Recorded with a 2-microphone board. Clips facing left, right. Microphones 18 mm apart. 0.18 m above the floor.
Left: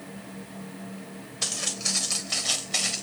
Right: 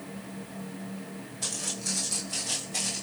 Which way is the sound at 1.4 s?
75° left (ahead or behind).